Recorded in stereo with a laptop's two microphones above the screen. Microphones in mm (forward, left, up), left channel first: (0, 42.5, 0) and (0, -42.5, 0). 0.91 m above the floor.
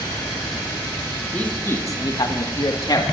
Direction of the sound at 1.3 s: 15° left (ahead or behind).